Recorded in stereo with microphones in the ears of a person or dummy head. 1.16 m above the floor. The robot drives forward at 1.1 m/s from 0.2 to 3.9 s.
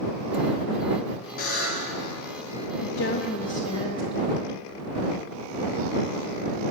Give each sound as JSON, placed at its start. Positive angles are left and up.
{"t": 1.4, "sound": "a buzzer", "side_deg": 45, "distance_m": 5.5}
{"t": 2.8, "sound": "a woman speaking", "side_deg": 65, "distance_m": 0.7}